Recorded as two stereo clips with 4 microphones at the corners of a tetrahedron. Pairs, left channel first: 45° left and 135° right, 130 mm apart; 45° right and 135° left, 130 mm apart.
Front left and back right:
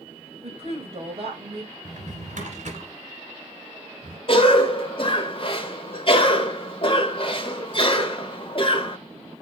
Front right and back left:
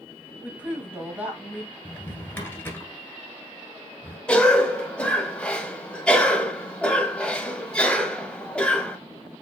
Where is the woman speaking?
150° right, 1.6 m.